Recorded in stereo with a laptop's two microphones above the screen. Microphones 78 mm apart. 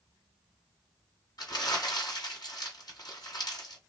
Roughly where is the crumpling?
Left.